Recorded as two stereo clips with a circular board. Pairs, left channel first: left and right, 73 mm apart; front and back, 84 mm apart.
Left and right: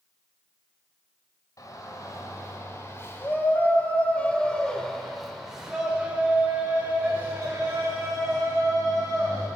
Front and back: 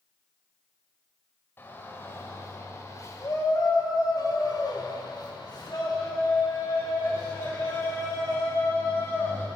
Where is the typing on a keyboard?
No typing on a keyboard in this recording.